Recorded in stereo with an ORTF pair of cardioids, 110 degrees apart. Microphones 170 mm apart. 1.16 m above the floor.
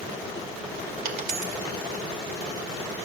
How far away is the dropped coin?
About 2 m.